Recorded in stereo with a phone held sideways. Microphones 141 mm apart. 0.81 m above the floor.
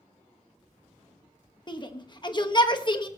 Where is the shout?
30° left (ahead or behind), 1.1 m.